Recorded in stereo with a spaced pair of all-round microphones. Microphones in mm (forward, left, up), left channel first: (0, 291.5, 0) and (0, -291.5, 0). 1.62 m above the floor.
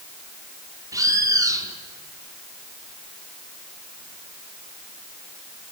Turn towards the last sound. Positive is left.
turn(degrees=-5)  # may be behind; listen again after turning